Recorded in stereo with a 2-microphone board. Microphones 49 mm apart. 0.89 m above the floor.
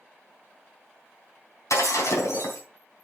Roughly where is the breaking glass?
Left.